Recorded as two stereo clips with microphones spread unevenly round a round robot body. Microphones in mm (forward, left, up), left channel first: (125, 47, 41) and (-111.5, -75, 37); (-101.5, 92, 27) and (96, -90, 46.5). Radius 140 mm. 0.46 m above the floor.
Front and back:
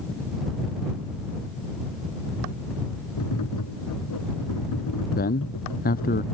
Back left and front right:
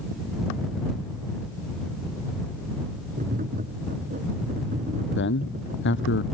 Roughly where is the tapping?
Ahead.